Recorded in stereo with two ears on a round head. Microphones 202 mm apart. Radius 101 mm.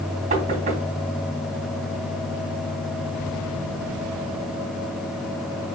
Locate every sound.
0.3 s knocking: 30° right (ahead or behind), 2.5 m